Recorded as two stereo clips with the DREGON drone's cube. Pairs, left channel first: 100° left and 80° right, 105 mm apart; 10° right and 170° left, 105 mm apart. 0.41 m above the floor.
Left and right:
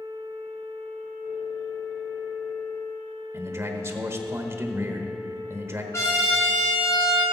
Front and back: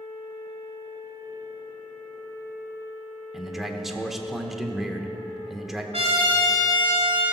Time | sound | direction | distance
3.3 | a man speaking | 105° right | 1.0 m
5.9 | a trumpet | 165° left | 3.5 m